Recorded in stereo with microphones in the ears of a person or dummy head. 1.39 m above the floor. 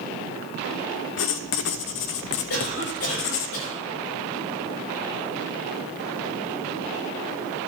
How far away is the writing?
About 0.7 m.